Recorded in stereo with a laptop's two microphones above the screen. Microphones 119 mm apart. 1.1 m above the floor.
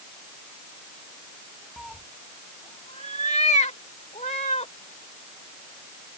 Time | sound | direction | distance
1.8 | a cat meowing | 5° right (ahead or behind) | ?